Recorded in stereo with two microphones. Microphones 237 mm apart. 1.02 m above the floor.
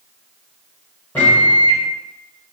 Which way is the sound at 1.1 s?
5° left (ahead or behind).